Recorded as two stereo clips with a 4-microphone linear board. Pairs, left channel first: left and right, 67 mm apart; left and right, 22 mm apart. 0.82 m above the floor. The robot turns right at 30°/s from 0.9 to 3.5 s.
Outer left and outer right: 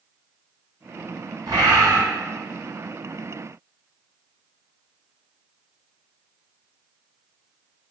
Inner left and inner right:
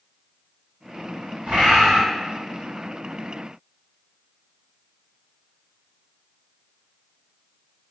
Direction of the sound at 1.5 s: 80° right.